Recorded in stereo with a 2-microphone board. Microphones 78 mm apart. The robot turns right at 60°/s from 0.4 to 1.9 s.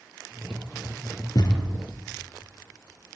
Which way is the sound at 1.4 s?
55° left (ahead or behind).